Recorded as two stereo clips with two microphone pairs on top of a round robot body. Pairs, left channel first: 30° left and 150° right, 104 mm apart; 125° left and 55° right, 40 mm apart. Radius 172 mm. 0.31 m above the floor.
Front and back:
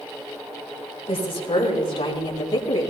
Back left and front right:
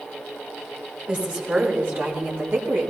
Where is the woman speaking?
Straight ahead, 6 m; by 2.9 s 25° right, 5 m.